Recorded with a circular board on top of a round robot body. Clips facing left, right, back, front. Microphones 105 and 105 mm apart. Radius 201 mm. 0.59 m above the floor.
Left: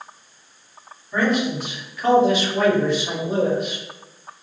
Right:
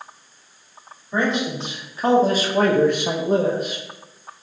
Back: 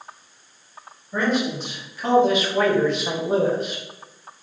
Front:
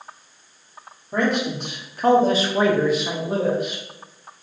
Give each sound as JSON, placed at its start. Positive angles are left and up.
{"t": 1.1, "sound": "a man speaking", "azimuth_deg": -20, "distance_m": 1.7}